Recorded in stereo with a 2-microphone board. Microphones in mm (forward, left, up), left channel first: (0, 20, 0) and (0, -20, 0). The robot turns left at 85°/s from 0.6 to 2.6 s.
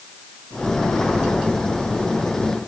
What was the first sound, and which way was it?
Only background noise.